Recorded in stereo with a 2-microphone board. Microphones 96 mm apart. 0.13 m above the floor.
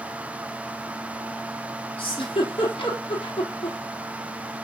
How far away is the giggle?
About 3.5 m.